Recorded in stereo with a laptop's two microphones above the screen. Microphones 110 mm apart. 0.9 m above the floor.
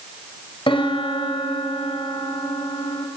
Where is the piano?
50° left (ahead or behind), 2.5 m.